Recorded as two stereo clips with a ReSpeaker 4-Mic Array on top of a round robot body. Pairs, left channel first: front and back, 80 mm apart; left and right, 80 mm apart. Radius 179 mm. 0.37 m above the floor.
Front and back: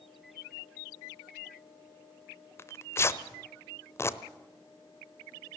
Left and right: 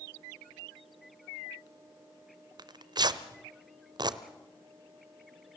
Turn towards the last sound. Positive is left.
turn(degrees=-60)